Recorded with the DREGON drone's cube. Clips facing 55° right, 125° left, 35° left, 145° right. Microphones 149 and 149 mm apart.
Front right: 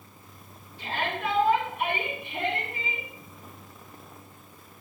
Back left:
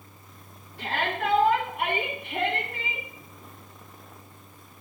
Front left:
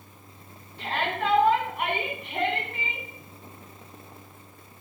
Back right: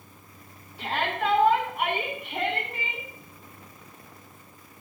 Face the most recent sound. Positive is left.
turn(degrees=130)